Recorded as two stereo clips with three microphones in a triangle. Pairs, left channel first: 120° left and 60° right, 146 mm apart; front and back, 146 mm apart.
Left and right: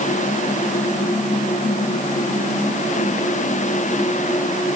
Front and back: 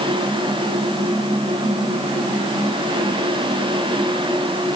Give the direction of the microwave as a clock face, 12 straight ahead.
No microwave in this recording.